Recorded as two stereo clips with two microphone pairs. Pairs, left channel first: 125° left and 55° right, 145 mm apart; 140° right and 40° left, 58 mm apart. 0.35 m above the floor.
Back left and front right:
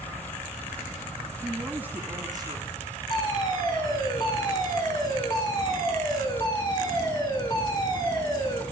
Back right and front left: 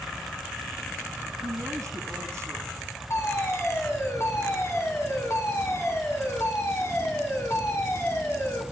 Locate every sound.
1.4 s a woman speaking: 30° left, 3.5 m; by 2.7 s straight ahead, 2.5 m
3.1 s a fire alarm: 175° right, 5.5 m